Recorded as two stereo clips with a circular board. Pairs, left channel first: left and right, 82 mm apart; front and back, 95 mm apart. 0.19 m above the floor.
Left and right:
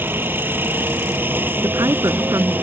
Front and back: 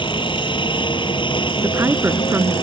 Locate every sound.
0.0 s a helicopter: 25° right
1.6 s a woman speaking: 120° right